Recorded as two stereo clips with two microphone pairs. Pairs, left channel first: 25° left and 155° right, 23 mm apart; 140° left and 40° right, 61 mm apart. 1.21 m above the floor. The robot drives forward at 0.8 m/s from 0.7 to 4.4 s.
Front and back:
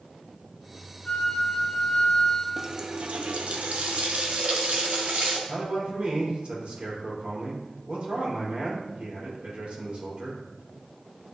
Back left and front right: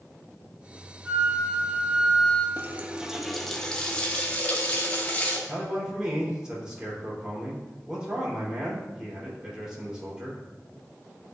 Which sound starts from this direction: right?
A running tap, at 2.6 s.